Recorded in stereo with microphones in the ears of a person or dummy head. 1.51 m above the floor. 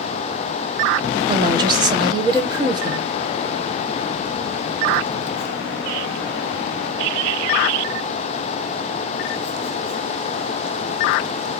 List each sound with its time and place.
1.3 s a woman speaking: 20° right (ahead or behind), 1.3 m